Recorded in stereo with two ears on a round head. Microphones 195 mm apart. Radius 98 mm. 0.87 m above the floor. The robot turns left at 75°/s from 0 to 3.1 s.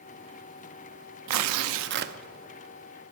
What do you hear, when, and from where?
1.3 s tearing paper: 80° right, 0.7 m; by 2.1 s 145° right, 0.7 m